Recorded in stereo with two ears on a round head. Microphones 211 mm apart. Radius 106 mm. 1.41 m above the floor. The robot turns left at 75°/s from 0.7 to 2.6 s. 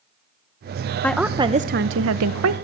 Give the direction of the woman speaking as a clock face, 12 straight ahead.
12 o'clock.